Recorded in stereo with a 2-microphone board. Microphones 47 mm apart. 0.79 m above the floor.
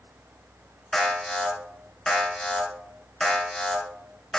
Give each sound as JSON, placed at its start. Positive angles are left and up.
{"t": 0.9, "sound": "an alarm", "side_deg": 10, "distance_m": 3.0}